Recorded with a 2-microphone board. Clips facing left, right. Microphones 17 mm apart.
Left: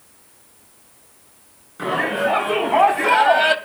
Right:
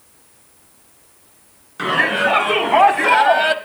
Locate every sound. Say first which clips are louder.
1.8 s a shout: right 4 dB; 50° right (ahead or behind), 3 m; by 3.5 s 10° left (ahead or behind), 1.3 m